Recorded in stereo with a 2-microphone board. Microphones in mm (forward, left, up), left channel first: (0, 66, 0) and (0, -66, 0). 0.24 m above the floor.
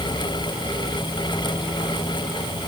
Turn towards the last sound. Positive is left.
No sound to turn to.